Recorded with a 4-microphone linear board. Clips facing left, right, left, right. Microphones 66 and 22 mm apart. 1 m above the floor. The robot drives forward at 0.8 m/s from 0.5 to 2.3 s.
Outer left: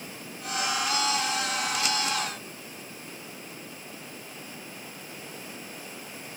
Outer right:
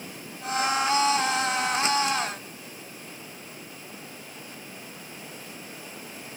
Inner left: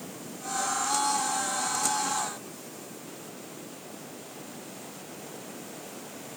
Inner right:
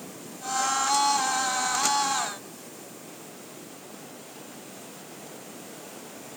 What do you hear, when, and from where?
Only background noise.